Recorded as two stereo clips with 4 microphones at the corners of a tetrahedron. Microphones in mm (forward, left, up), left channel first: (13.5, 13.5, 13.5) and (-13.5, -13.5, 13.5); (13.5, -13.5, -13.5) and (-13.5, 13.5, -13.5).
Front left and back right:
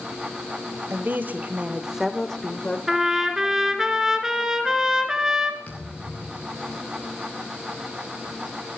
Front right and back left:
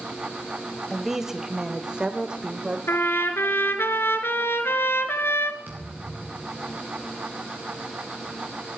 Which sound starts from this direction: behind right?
A woman speaking, at 0.9 s.